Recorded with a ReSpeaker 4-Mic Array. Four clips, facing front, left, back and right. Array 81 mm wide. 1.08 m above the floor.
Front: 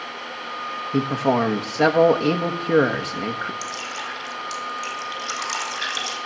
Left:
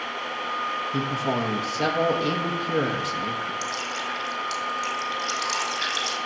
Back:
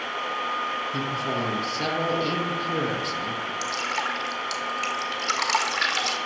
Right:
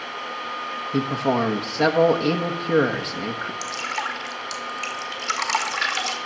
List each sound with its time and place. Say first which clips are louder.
0.9 s a man speaking: right 7 dB, front 7 dB; 25° right, 1.1 m
3.6 s dripping: right 2 dB, back 3 dB; 125° right, 2 m